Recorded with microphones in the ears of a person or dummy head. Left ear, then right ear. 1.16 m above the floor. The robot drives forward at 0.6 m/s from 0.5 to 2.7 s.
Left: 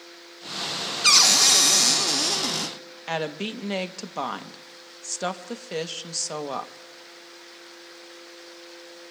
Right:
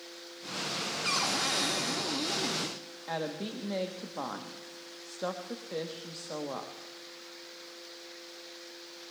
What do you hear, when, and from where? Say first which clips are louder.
1.0 s a cupboard door: left 14 dB; 65° left (ahead or behind), 0.9 m; by 2.8 s 50° left (ahead or behind), 1.1 m
3.1 s a woman speaking: left 7 dB; 70° left (ahead or behind), 0.9 m